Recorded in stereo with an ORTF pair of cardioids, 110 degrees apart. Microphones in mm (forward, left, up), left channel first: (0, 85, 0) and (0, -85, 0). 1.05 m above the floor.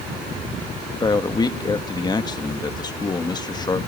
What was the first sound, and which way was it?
A man speaking, 25° left.